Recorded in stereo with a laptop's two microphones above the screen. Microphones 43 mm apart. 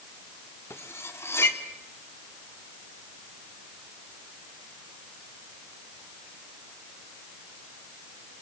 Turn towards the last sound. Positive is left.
turn(degrees=80)